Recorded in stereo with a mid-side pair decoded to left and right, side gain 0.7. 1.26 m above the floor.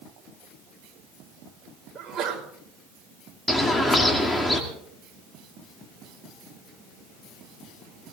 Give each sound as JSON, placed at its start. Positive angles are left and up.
{"t": 1.9, "sound": "a sneeze", "azimuth_deg": -30, "distance_m": 6.0}
{"t": 3.5, "sound": "a bird", "azimuth_deg": 10, "distance_m": 2.5}